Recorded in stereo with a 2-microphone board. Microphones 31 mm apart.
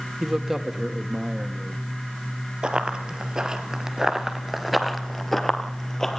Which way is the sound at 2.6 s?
30° right (ahead or behind).